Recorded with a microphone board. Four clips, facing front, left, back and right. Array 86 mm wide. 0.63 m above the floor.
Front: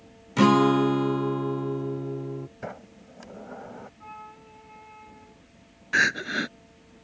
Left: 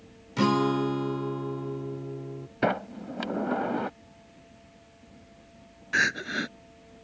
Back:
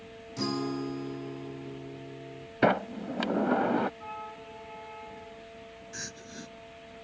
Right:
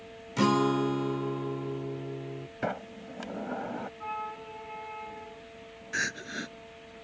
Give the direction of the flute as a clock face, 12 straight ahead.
3 o'clock.